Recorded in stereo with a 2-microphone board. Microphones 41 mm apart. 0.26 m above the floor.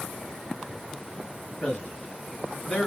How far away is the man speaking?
About 2.5 m.